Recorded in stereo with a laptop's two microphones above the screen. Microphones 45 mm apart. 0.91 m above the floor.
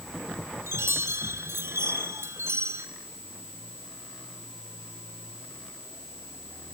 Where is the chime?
80° right, 2.5 m.